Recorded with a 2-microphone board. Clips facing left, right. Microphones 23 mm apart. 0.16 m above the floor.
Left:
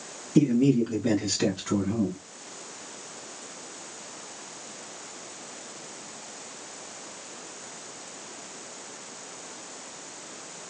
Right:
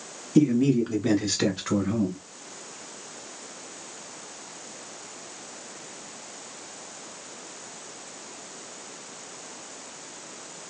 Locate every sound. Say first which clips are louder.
0.3 s a man speaking: right 1 dB; 10° right (ahead or behind), 1.3 m; by 2.2 s 45° right (ahead or behind), 1.7 m